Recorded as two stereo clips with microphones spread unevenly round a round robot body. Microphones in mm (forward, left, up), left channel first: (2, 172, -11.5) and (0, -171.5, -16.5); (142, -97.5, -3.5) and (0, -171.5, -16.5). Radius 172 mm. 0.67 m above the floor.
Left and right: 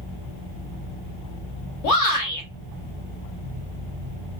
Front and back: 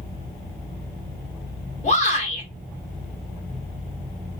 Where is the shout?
70° left, 1.7 m.